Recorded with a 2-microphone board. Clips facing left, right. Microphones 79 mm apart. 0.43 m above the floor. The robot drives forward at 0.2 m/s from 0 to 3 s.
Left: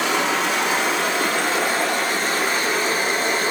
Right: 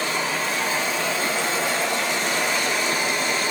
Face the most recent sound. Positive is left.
turn(degrees=40)  # may be behind; listen again after turning